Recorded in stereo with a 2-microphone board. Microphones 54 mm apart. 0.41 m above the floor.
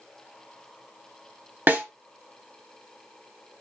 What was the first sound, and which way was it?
A snare drum, 40° right (ahead or behind).